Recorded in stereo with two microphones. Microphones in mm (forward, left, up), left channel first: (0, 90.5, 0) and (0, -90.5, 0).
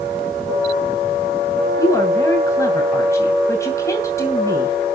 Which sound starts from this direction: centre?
A woman speaking, at 1.8 s.